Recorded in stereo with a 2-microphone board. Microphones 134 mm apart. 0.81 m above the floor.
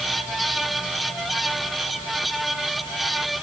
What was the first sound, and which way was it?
Only background noise.